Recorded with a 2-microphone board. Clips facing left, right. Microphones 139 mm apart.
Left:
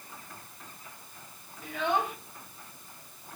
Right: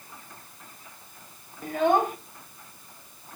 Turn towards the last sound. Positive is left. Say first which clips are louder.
# right 7 dB
turn(degrees=-45)  # may be behind; listen again after turning